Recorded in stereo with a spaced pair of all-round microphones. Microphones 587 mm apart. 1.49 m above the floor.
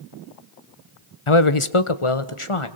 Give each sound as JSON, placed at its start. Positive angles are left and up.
{"t": 1.3, "sound": "a man speaking", "side_deg": 60, "distance_m": 1.0}